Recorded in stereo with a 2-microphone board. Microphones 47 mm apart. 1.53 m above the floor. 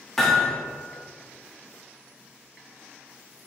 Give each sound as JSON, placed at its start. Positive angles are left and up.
{"t": 0.2, "sound": "hammering", "side_deg": 10, "distance_m": 1.4}